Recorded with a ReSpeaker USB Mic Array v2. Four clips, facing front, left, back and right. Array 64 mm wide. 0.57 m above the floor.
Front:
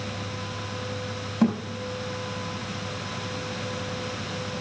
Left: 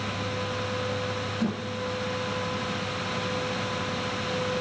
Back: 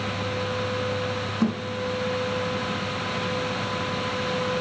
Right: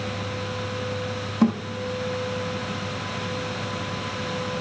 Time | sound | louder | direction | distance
1.4 | a thud | right 10 dB, front 3 dB | 35° right | 5 m